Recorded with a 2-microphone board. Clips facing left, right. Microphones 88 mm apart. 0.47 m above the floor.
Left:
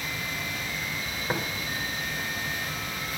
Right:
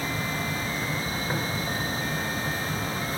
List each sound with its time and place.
1.3 s tapping: 20° left (ahead or behind), 1.5 m